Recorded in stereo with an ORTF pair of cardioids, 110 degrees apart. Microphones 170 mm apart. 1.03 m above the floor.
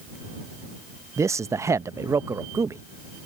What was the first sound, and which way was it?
A man speaking, 15° right.